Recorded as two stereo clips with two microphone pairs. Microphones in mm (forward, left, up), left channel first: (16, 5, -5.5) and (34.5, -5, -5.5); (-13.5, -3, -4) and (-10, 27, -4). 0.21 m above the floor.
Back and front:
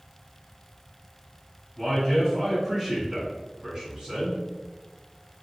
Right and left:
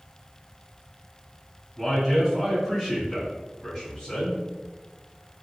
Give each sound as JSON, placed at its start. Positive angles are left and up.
{"t": 1.8, "sound": "a man speaking", "azimuth_deg": 125, "distance_m": 1.7}